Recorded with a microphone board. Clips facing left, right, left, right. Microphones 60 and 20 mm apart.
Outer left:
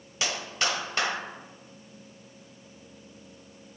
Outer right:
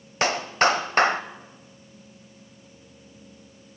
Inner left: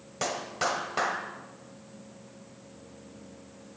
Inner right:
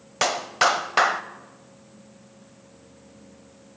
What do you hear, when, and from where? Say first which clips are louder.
0.2 s a clap: outer right 9 dB, inner right 9 dB; 45° right (ahead or behind), 1.5 m